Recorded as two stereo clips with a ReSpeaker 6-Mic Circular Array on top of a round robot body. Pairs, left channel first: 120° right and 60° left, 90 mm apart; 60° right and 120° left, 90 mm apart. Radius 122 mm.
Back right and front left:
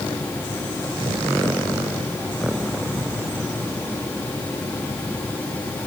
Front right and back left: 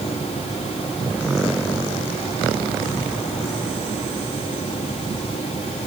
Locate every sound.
Only background noise.